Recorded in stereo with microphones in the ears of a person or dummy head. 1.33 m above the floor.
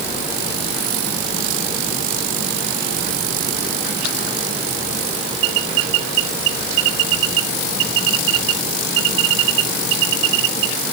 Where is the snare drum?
No snare drum in this recording.